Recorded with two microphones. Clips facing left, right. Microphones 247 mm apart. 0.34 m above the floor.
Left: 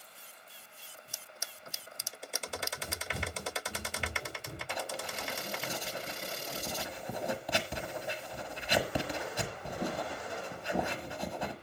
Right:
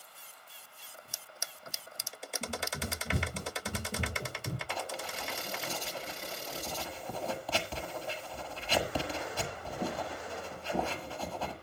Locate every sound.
2.4 s running footsteps: 45° right (ahead or behind), 4.5 m
4.7 s writing: 15° left (ahead or behind), 1.5 m